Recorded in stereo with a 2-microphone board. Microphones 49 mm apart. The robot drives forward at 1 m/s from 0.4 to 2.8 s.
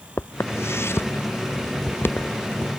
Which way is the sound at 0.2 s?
65° left (ahead or behind).